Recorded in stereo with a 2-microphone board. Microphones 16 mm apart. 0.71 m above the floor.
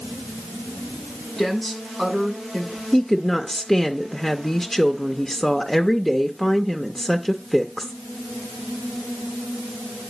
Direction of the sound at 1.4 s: 35° left (ahead or behind).